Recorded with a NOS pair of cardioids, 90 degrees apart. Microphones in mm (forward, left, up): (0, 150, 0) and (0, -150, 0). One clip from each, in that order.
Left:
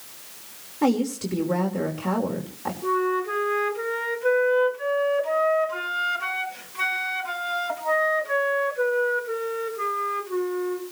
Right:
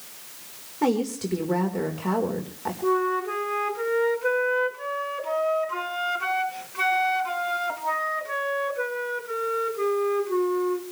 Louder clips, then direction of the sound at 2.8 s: Even; 10° right.